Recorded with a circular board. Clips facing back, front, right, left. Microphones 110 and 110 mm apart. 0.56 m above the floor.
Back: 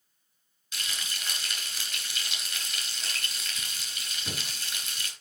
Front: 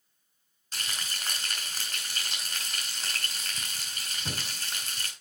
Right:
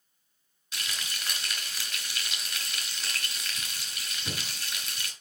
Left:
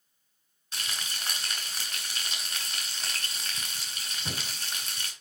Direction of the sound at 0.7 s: 50° left.